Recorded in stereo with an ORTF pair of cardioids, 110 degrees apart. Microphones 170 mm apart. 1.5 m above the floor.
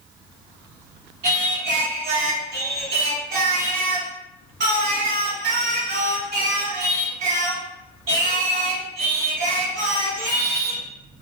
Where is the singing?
60° right, 1.0 m.